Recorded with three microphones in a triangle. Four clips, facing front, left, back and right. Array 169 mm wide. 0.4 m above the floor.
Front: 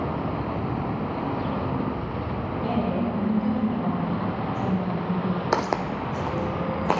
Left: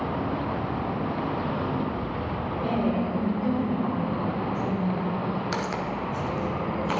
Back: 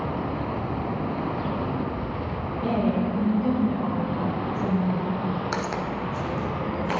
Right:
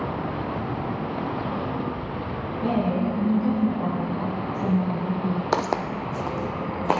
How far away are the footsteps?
About 0.8 m.